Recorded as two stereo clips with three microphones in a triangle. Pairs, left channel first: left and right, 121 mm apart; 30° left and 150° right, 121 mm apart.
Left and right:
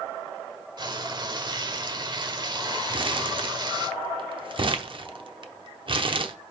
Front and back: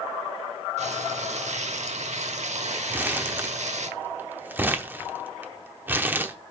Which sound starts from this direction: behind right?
Frying, at 0.8 s.